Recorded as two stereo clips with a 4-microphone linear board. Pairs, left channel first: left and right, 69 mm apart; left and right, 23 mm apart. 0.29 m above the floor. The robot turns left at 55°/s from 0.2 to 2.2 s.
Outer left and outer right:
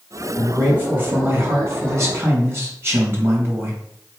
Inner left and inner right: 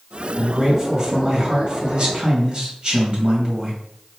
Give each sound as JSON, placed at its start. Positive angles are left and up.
{"t": 0.4, "sound": "a man speaking", "azimuth_deg": -15, "distance_m": 1.9}